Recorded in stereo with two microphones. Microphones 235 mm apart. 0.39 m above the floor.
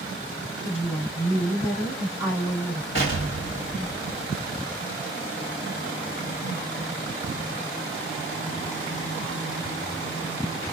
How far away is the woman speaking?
About 4.5 m.